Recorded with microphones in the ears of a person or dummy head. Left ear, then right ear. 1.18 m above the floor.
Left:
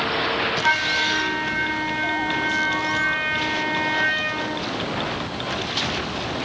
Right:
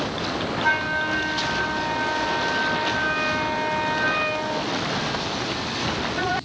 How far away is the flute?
About 6.5 m.